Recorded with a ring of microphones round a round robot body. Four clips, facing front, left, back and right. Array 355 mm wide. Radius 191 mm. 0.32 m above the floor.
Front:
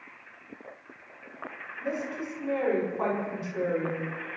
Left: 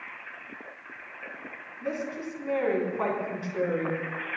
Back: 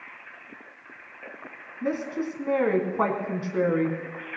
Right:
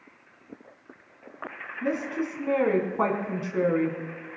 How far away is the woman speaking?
About 4 m.